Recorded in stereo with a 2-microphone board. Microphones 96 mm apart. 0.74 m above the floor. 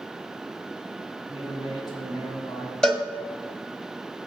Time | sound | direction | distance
1.3 | a man speaking | 50° left (ahead or behind) | 5 m
2.8 | a cowbell | 5° left (ahead or behind) | 1.3 m